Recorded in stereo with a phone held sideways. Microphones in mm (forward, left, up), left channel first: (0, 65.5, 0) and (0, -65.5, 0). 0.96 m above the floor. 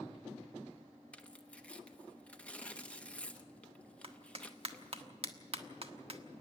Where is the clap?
50° right (ahead or behind), 1.3 m.